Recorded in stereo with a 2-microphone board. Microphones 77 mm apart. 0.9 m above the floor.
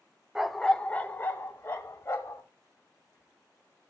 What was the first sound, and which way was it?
A dog barking, 5° right (ahead or behind).